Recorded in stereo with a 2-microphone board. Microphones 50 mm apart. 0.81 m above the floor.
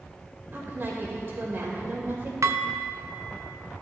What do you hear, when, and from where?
0.5 s a woman speaking: 45° right (ahead or behind), 2.5 m
2.4 s dishes clattering: 70° right (ahead or behind), 0.5 m